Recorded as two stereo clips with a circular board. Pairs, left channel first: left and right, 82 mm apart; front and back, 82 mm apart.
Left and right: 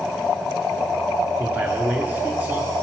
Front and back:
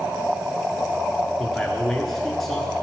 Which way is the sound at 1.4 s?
80° right.